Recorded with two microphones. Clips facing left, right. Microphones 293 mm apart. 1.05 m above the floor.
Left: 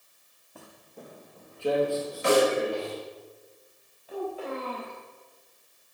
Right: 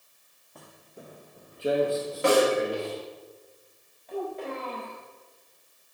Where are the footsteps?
5° left (ahead or behind), 1.4 m; by 3.0 s 35° right (ahead or behind), 3 m.